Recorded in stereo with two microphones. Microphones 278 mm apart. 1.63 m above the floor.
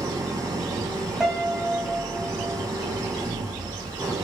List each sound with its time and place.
0.0 s an engine running: 15° right (ahead or behind), 2.5 m
1.2 s a piano: centre (ahead or behind), 4 m